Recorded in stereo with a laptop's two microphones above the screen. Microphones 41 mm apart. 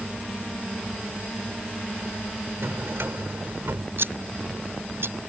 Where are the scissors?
65° right (ahead or behind).